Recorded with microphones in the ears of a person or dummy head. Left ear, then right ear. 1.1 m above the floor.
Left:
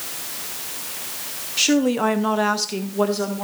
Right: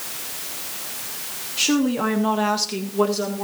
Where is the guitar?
No guitar in this recording.